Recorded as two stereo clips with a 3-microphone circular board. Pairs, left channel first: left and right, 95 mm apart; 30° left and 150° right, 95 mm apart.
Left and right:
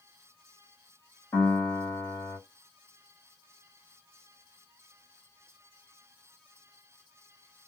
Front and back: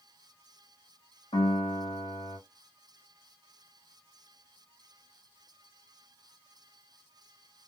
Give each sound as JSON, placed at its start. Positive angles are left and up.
{"t": 1.3, "sound": "a piano", "azimuth_deg": 25, "distance_m": 2.0}